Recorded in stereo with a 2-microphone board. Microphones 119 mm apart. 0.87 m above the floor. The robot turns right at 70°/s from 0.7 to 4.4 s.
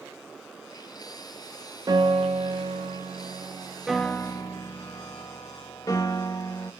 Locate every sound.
1.9 s a piano: 140° right, 0.8 m; by 6.7 s 35° left, 0.8 m